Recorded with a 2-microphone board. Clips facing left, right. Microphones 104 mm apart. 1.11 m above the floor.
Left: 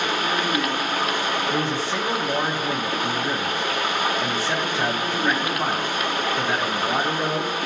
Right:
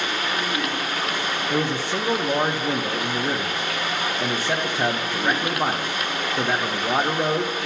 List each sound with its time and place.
0.0 s running water: 45° left (ahead or behind), 1.5 m
1.5 s a man speaking: 15° right (ahead or behind), 0.6 m